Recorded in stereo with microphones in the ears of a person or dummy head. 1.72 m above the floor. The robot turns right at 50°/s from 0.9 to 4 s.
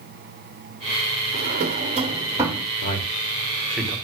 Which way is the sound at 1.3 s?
55° right (ahead or behind).